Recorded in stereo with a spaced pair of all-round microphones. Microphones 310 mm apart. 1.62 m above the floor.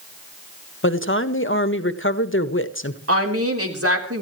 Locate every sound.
0.8 s a woman speaking: 40° left (ahead or behind), 1.3 m
3.1 s a woman speaking: 45° right (ahead or behind), 3.5 m